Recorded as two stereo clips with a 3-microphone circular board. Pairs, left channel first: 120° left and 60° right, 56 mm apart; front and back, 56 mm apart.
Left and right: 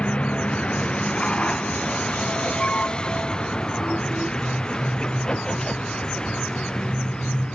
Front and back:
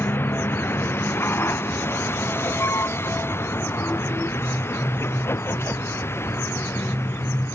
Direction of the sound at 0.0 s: 50° left.